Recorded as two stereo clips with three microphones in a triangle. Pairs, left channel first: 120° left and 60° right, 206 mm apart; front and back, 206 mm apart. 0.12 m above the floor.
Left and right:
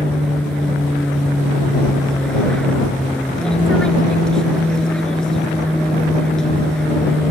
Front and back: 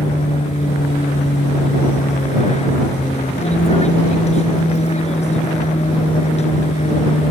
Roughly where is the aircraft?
Ahead left.